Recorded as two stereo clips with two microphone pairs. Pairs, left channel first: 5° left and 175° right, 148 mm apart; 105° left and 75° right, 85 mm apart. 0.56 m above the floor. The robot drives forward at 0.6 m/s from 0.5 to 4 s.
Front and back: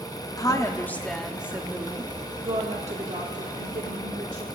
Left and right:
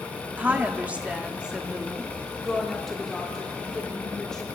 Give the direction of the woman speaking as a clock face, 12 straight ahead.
1 o'clock.